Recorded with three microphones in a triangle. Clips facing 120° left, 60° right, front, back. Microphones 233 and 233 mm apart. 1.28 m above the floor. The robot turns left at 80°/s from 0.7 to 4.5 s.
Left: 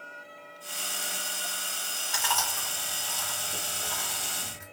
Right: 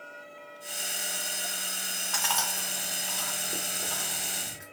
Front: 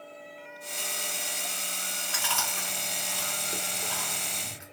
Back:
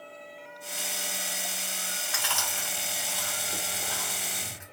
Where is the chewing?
45° left, 1.5 m; by 4.6 s 145° right, 1.5 m.